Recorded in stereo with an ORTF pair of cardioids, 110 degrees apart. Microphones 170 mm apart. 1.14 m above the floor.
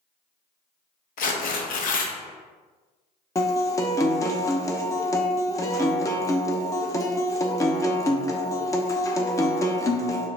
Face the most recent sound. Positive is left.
turn(degrees=20)